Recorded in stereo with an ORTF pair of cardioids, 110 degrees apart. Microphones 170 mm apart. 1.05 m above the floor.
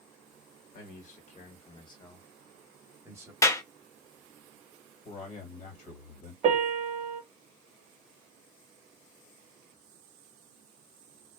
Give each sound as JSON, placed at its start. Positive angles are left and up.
{"t": 0.7, "sound": "a man speaking", "azimuth_deg": 60, "distance_m": 1.3}
{"t": 3.4, "sound": "a clap", "azimuth_deg": 20, "distance_m": 0.7}
{"t": 5.0, "sound": "a man speaking", "azimuth_deg": 60, "distance_m": 1.4}
{"t": 6.4, "sound": "a piano", "azimuth_deg": -45, "distance_m": 0.7}